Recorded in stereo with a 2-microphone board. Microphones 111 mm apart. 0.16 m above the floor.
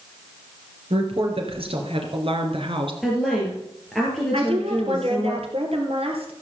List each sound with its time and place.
0.9 s a woman speaking: 65° right (ahead or behind), 3 m; by 2.9 s 55° right (ahead or behind), 2.5 m
3.0 s a woman speaking: 5° left (ahead or behind), 3.5 m
4.3 s a woman speaking: 65° right (ahead or behind), 3 m